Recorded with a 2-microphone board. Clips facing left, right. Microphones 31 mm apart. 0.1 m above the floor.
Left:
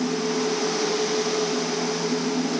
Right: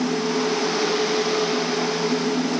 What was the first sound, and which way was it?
Only background noise.